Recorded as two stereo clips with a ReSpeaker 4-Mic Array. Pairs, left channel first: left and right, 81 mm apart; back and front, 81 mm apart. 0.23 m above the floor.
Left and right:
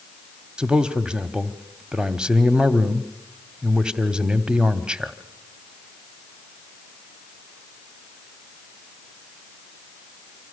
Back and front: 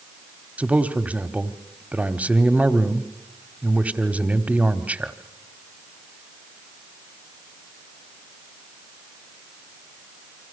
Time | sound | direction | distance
0.6 | a man speaking | 30° right | 1.2 m